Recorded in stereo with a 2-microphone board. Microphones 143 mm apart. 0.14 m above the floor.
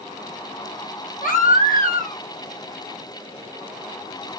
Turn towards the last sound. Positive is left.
turn(degrees=70)  # may be behind; listen again after turning